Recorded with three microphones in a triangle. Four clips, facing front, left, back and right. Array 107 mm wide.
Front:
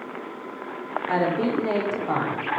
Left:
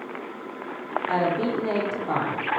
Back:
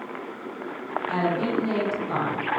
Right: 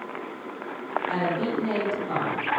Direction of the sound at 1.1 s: 30° left.